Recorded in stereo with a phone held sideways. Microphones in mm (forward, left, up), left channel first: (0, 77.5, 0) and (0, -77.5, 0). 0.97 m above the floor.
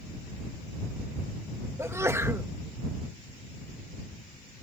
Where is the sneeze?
15° right (ahead or behind).